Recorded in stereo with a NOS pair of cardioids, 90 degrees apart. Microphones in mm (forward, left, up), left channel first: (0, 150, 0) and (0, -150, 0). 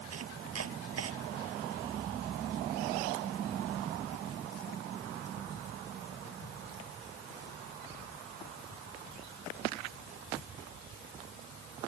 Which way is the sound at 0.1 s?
55° right.